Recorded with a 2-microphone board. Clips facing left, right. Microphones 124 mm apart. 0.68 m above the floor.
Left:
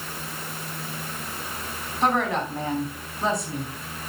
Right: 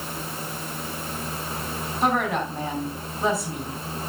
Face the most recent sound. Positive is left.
turn(degrees=-5)  # may be behind; listen again after turning